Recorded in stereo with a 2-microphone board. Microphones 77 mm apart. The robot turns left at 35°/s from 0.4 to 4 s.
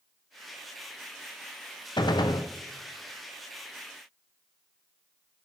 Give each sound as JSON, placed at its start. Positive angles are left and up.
{"t": 2.0, "sound": "a gunshot", "side_deg": 70, "distance_m": 0.7}